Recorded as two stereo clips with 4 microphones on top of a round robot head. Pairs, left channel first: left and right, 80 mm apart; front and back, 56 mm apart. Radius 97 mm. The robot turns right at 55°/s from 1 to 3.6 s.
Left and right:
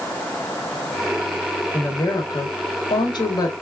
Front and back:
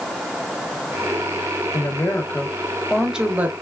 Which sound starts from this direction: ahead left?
A woman speaking, at 1.7 s.